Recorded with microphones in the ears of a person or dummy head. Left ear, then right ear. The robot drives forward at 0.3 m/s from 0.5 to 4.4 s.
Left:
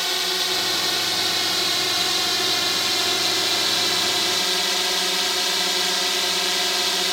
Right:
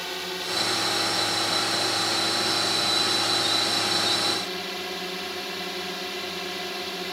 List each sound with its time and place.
0.0 s a drone: 40° left (ahead or behind); by 7.1 s 50° left (ahead or behind)